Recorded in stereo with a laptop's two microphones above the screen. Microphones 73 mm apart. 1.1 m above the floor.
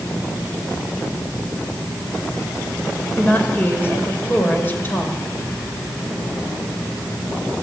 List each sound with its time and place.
0.0 s a fan: 75° left (ahead or behind), 9.5 m
3.2 s a woman speaking: 25° left (ahead or behind), 5 m